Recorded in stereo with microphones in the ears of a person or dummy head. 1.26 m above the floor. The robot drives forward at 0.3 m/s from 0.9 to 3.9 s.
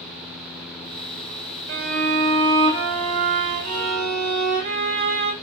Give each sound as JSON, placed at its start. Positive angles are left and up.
{"t": 1.7, "sound": "a violin", "side_deg": -45, "distance_m": 0.9}